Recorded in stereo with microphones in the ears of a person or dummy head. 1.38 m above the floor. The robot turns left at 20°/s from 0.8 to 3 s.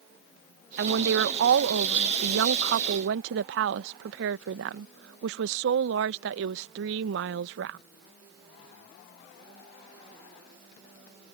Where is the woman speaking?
65° right; by 7.8 s 110° right.